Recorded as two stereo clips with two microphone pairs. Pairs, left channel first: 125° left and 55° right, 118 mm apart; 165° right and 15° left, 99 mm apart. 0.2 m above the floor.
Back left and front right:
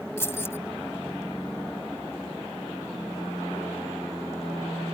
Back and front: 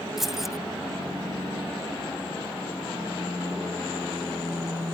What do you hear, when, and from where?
0.2 s keys jangling: 100° left